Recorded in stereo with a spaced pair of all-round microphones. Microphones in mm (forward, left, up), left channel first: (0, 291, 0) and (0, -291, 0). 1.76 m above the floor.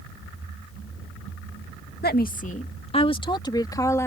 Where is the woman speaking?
15° left (ahead or behind); by 4.1 s 5° left (ahead or behind).